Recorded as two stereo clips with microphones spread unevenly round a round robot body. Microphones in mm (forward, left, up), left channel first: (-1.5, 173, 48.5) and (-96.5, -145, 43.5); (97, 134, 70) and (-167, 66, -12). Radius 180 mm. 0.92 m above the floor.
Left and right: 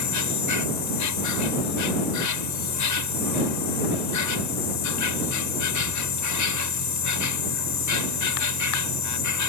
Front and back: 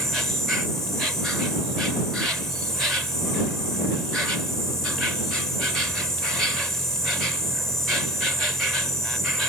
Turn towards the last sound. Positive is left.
turn(degrees=105)